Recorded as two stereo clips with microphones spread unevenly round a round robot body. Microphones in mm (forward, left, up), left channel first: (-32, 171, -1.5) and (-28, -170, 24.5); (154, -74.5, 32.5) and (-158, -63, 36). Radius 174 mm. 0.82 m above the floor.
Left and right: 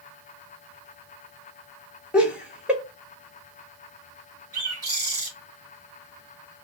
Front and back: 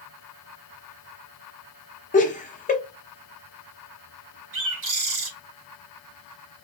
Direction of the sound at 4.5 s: 140° right.